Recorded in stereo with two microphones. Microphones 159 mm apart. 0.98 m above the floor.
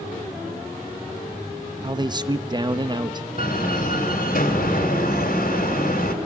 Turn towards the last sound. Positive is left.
turn(degrees=60)  # may be behind; listen again after turning